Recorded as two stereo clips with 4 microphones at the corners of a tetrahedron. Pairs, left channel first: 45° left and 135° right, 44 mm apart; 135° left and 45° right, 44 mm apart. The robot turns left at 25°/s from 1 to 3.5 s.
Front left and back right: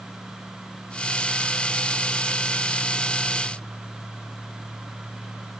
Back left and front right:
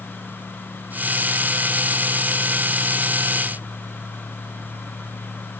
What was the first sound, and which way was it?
Only background noise.